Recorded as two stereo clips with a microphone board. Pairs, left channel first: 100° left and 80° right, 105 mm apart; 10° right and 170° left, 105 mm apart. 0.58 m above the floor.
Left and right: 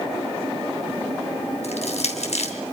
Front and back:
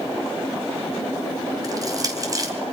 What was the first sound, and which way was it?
Crushing, 115° left.